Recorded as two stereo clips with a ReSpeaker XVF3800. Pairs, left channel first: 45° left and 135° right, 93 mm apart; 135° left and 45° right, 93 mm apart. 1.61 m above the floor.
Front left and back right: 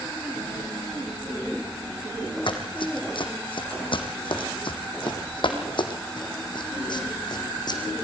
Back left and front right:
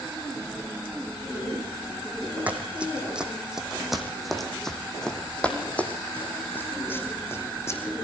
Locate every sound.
2.5 s running footsteps: 30° left, 3.5 m; by 7.8 s 80° left, 4 m